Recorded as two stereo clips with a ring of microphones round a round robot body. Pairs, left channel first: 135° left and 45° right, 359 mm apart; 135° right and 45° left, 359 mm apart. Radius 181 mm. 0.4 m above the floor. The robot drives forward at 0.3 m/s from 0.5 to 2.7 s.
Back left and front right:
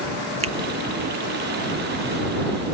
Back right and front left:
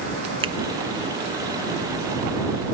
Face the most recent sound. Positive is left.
turn(degrees=180)